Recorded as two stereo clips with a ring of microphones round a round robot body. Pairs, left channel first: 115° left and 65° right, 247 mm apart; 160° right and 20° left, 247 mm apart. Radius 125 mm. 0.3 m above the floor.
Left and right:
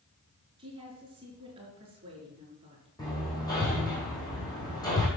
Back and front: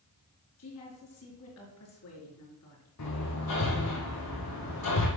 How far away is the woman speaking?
About 4 m.